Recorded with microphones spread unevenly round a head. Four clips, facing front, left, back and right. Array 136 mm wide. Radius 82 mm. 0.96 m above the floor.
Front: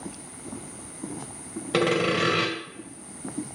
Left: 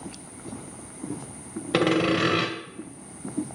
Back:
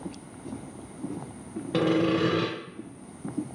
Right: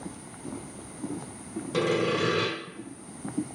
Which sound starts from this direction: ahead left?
Sawing, at 1.7 s.